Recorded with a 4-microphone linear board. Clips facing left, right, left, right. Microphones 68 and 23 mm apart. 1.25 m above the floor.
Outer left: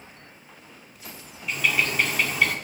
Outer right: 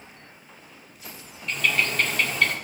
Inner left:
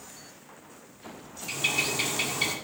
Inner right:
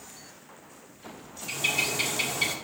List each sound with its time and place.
1.5 s a bird: 5° left (ahead or behind), 1.7 m